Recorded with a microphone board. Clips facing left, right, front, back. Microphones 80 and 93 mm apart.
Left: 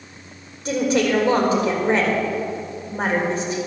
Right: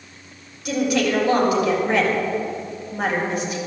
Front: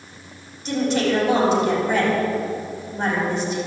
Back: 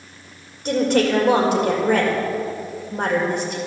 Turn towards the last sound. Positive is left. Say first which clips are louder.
# left 1 dB, back 3 dB
turn(degrees=145)